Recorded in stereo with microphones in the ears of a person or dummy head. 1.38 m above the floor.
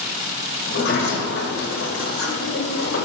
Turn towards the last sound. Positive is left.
turn(degrees=65)  # may be behind; listen again after turning